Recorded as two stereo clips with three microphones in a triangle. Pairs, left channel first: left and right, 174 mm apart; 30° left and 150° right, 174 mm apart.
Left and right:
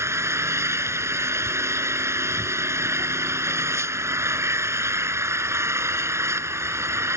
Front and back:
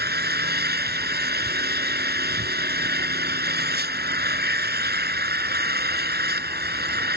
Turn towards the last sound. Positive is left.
turn(degrees=-165)